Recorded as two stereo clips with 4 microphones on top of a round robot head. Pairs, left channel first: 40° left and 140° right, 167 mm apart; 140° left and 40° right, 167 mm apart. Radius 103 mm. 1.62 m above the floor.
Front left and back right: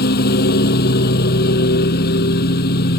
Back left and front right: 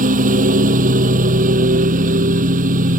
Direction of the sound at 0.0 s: 5° left.